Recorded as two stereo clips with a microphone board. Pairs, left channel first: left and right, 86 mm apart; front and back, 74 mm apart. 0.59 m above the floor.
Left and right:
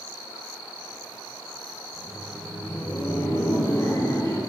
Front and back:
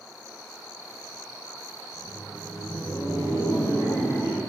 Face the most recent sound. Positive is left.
turn(degrees=45)